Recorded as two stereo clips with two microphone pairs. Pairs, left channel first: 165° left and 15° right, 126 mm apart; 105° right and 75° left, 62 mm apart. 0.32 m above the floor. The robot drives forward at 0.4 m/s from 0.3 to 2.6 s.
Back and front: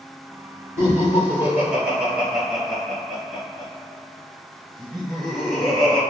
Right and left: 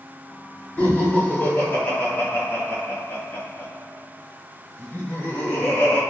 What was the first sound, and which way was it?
Laughter, 70° right.